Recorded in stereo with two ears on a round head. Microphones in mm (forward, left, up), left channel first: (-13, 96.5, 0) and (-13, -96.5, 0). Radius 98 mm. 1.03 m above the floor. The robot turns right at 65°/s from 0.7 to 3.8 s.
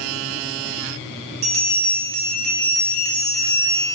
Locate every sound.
1.4 s a bell: 105° right, 1.7 m; by 3.9 s 50° left, 1.7 m